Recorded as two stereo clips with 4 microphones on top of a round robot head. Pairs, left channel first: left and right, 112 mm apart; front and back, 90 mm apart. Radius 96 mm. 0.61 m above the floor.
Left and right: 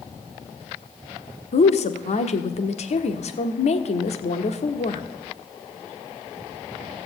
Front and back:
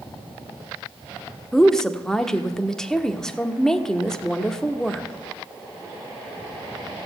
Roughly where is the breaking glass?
I don't hear breaking glass.